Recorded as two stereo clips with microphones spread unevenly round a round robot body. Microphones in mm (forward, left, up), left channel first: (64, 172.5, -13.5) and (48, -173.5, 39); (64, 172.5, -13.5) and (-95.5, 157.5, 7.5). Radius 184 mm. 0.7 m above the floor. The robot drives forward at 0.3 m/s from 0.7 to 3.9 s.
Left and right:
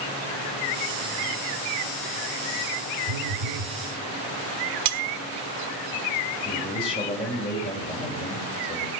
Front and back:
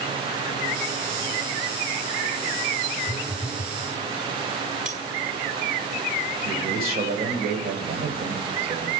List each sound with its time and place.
3.1 s a phone buzzing: 70° right, 0.8 m; by 3.8 s 85° right, 0.8 m
4.8 s cutlery clinking: 105° right, 0.9 m
6.5 s a man speaking: 160° left, 3.5 m